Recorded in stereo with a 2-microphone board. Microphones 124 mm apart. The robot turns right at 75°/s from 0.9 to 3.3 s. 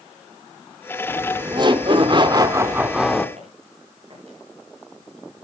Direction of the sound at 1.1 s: 150° right.